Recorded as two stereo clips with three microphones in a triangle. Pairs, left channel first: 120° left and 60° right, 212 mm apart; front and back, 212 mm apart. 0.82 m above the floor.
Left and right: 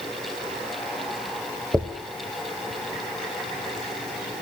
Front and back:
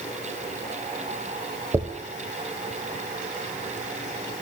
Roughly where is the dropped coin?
Behind right.